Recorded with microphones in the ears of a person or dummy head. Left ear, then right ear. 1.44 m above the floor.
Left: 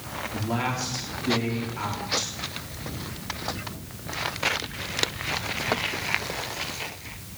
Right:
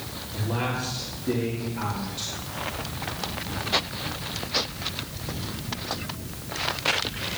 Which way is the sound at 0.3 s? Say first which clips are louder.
Even; 80° left.